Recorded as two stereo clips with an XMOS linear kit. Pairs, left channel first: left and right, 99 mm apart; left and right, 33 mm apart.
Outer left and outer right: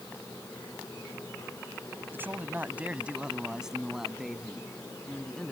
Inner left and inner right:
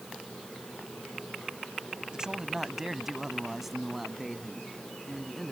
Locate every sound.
2.1 s a man speaking: 25° right (ahead or behind); by 5.5 s 5° left (ahead or behind)